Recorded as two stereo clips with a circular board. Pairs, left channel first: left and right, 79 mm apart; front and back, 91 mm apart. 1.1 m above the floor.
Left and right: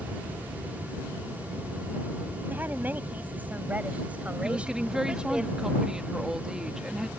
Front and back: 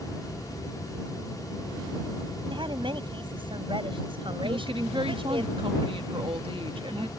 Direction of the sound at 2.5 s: 155° right.